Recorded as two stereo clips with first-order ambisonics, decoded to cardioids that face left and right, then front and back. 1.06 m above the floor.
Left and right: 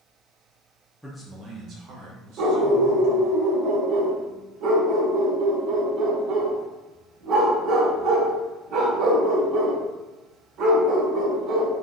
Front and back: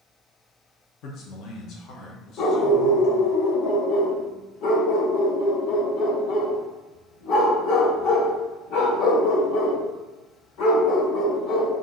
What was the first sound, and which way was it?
A man speaking, 5° right.